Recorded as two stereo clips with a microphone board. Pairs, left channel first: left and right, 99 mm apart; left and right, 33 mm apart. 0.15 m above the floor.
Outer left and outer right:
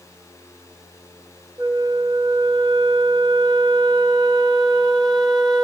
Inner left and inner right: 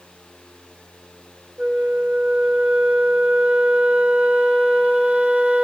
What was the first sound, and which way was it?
A flute, 45° right (ahead or behind).